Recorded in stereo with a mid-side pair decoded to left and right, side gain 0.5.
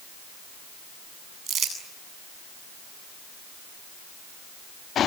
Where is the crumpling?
45° right, 8.5 m.